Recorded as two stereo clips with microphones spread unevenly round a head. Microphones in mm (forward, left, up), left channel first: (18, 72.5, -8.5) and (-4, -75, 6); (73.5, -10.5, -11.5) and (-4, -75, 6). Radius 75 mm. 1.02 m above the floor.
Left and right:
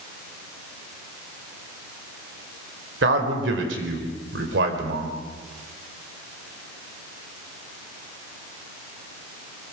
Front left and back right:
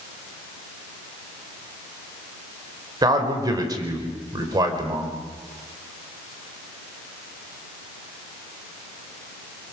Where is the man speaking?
90° right, 4 m.